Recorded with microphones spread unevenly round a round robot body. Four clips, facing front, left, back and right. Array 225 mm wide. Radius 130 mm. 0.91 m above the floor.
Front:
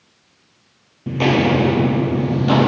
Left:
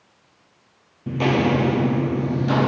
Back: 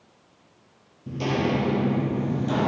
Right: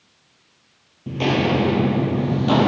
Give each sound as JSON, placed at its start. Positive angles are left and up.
{"t": 1.1, "sound": "footsteps", "azimuth_deg": 0, "distance_m": 1.3}